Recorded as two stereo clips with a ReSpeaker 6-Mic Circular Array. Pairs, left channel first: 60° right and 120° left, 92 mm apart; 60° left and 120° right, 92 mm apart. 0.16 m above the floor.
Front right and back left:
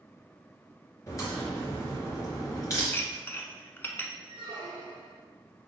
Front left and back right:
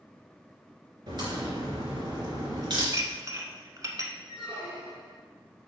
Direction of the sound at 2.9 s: 115° right.